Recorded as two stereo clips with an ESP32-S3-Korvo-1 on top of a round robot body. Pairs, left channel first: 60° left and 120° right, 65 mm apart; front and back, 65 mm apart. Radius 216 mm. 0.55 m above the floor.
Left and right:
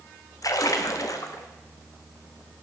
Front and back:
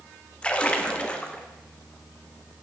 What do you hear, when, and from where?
0.4 s a splash: 70° left, 0.9 m